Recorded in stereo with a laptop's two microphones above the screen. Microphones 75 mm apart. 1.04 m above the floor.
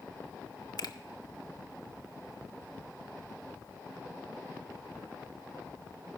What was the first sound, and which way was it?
A finger snap, 65° left (ahead or behind).